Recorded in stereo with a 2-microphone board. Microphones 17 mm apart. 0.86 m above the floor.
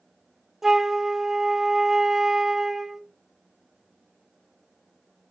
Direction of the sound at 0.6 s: 20° right (ahead or behind).